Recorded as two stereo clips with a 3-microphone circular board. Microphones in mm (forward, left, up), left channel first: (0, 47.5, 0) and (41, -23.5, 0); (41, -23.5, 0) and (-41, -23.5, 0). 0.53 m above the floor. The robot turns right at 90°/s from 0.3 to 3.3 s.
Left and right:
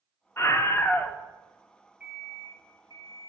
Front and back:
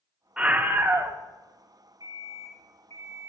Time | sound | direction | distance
0.4 | a scream | 110° left | 1.1 m
2.0 | an alarm clock | 135° right | 5.5 m